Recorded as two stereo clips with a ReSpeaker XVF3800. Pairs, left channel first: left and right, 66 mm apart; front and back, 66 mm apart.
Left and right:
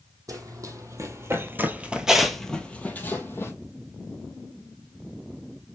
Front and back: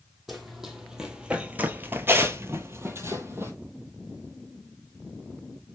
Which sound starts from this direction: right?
Running footsteps, at 0.3 s.